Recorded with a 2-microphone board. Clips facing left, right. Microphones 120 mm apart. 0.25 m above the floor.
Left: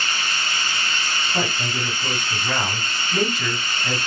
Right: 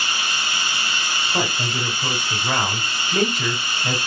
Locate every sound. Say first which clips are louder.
0.0 s running water: right 1 dB; 5° right (ahead or behind), 1.2 m
1.3 s a man speaking: right 2 dB; 20° right (ahead or behind), 1.9 m